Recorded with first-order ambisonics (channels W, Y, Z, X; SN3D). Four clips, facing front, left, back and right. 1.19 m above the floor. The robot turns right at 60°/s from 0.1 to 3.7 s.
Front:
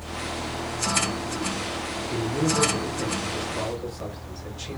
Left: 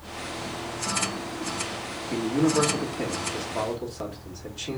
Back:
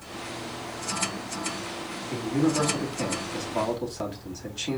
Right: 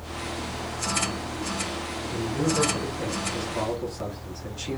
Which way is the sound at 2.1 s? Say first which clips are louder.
Left 4 dB, even; 85° left.